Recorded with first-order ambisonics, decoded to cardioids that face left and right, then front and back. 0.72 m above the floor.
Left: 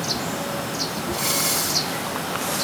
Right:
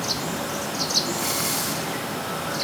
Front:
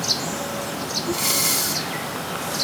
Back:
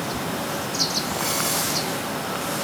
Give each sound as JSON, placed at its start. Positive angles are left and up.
{"t": 1.1, "sound": "breathing", "azimuth_deg": 10, "distance_m": 1.7}